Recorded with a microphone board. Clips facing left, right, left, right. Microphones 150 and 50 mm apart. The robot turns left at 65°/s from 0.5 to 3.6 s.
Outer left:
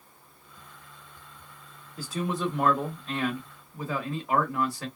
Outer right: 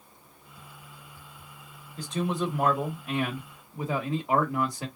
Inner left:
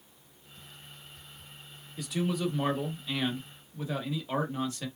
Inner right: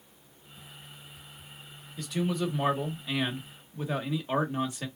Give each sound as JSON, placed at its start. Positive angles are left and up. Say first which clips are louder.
{"t": 2.0, "sound": "a man speaking", "louder": "outer right 1 dB, inner right 1 dB", "side_deg": 10, "distance_m": 1.1}